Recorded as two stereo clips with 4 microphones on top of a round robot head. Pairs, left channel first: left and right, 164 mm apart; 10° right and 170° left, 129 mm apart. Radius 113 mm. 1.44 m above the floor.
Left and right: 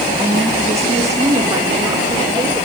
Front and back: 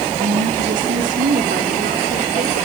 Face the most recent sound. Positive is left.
turn(degrees=-155)